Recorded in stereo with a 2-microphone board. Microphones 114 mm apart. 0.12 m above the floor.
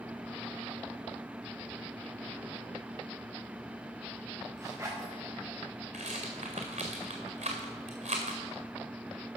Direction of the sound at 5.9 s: 85° right.